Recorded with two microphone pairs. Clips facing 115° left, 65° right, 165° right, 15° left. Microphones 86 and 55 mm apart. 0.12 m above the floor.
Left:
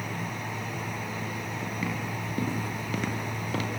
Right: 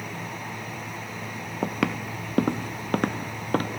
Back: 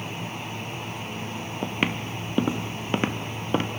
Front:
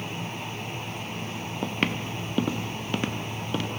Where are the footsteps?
80° right, 2 m; by 3.7 s 110° right, 2.5 m.